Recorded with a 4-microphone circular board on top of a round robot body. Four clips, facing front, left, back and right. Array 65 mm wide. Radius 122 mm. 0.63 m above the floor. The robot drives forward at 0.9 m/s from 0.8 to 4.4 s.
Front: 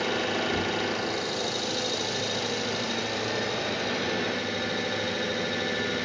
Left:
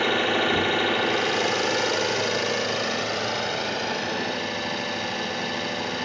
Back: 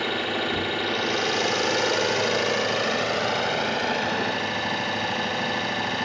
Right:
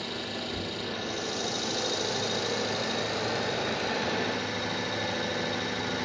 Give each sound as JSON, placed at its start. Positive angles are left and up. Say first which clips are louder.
{"t": 0.0, "sound": "an engine running", "louder": "left 13 dB, back 1 dB", "azimuth_deg": 100, "distance_m": 1.1}